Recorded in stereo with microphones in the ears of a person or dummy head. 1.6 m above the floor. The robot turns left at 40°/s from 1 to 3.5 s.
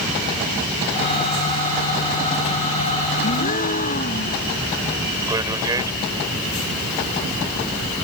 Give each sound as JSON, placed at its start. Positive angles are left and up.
{"t": 3.2, "sound": "a gasp", "side_deg": 35}
{"t": 5.3, "sound": "a man speaking", "side_deg": -20}